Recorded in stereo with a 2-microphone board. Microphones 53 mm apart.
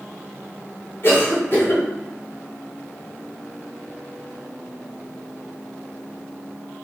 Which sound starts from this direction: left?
A cough, at 1.0 s.